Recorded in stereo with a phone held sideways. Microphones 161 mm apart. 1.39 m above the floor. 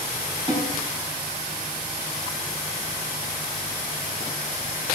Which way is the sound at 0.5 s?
25° right (ahead or behind).